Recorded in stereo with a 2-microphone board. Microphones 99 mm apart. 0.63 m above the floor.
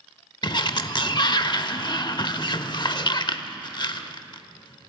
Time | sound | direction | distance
0.4 | a sliding door | 50° left (ahead or behind) | 0.9 m